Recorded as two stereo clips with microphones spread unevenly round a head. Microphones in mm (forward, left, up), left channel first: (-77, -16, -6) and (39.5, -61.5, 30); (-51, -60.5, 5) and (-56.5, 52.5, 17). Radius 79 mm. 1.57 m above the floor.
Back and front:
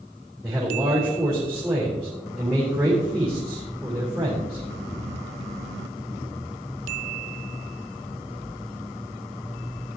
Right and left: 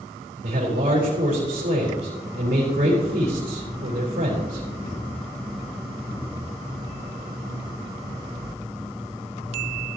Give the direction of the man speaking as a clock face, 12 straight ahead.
10 o'clock.